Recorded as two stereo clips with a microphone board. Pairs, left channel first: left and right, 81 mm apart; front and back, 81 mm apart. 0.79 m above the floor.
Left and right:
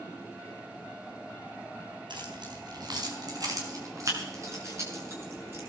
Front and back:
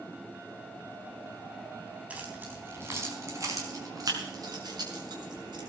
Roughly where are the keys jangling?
Right.